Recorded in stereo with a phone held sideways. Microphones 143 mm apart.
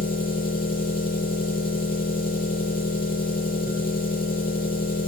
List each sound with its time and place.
0.0 s an engine running: 70° left (ahead or behind), 10 m